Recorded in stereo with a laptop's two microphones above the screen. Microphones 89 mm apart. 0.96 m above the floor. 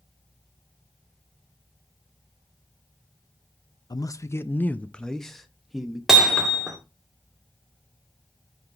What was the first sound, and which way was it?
A man speaking, 50° left (ahead or behind).